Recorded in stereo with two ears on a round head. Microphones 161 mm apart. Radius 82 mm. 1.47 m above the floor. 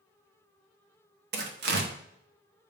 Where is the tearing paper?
65° right (ahead or behind), 1.0 m.